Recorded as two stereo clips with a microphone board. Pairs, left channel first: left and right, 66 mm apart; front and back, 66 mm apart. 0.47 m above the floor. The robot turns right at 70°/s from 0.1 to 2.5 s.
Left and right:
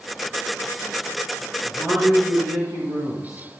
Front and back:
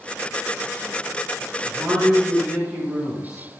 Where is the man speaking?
165° right, 8 m; by 3.6 s 105° right, 8 m.